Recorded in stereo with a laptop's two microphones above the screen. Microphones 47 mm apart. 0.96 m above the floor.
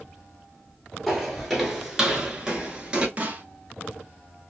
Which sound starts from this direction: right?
A snare drum, at 3.2 s.